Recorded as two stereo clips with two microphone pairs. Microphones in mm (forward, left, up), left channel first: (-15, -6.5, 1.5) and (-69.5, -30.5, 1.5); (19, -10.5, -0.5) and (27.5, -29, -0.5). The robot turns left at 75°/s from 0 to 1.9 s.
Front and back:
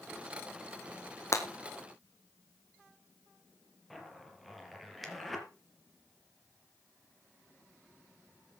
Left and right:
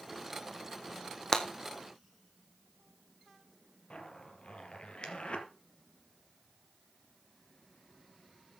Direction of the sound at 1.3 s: 65° left.